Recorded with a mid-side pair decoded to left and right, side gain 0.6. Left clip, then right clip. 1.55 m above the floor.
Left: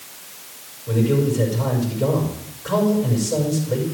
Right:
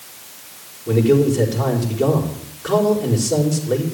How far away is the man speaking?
About 4.5 m.